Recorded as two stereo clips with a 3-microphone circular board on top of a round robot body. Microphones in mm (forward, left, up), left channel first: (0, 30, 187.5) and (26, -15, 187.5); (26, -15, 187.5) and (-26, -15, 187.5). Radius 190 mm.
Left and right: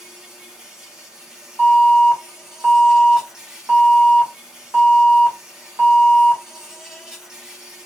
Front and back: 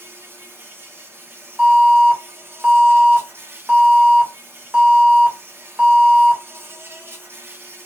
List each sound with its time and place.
0.0 s an insect: 140° right, 1.2 m
1.6 s an alarm: 105° right, 1.9 m